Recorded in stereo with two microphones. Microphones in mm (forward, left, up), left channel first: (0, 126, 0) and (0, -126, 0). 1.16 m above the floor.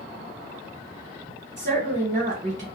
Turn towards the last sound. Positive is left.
turn(degrees=-30)  # may be behind; listen again after turning